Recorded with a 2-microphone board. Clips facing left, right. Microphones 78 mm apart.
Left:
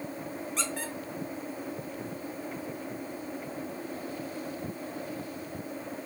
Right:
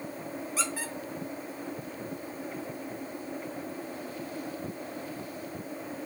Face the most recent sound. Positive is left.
turn(degrees=-5)  # may be behind; listen again after turning